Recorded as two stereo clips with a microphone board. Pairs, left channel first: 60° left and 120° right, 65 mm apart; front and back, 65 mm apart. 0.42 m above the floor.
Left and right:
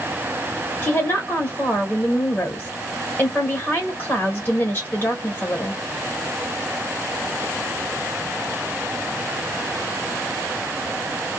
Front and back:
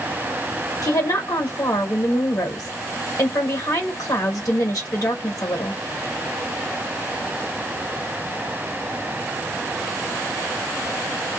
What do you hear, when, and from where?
0.8 s a woman speaking: 5° left, 1.4 m